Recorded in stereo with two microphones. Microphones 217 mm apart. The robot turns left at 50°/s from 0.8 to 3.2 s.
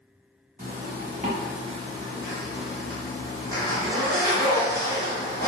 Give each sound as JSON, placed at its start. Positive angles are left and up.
{"t": 0.6, "sound": "a zipper", "azimuth_deg": -90, "distance_m": 1.1}